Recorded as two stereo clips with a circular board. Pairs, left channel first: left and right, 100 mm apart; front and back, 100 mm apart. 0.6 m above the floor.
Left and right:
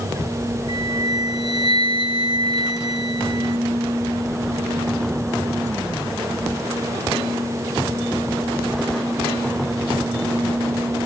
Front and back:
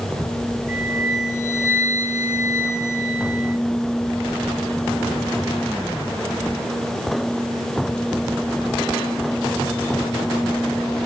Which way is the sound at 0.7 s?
65° right.